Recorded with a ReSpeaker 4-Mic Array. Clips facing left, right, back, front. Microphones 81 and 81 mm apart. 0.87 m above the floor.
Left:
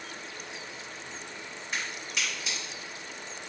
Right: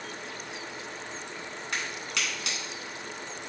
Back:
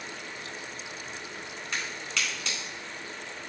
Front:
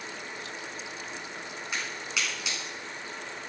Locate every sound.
1.7 s a crack: 80° right, 3.5 m